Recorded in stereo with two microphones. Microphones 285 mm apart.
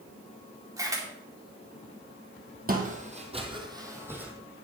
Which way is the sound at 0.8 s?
10° right (ahead or behind).